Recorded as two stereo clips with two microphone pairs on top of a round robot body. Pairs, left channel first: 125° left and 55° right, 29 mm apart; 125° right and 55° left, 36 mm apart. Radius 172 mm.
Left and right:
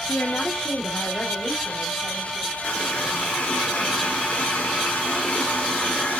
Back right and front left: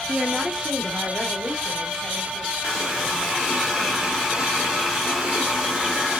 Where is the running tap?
125° left, 1.8 m.